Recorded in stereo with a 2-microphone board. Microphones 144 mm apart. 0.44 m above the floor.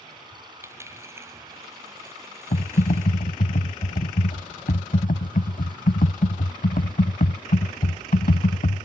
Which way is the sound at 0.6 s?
20° right (ahead or behind).